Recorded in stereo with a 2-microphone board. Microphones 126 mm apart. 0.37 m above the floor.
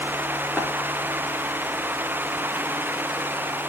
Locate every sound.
0.6 s tapping: 5° left (ahead or behind), 8 m